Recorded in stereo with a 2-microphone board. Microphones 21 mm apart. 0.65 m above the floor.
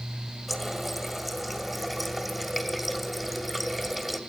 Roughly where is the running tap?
Centre.